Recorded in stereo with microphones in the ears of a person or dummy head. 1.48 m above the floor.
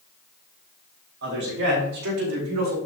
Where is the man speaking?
70° right (ahead or behind), 6 m; by 2.8 s 80° right, 4 m.